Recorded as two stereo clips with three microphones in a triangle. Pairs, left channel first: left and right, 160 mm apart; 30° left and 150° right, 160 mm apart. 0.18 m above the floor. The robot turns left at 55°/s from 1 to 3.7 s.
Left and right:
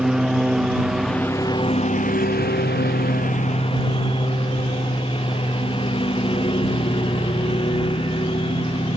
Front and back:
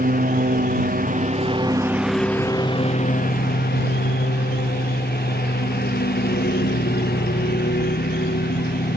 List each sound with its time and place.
0.0 s a lawn mower: straight behind; by 9.0 s 35° left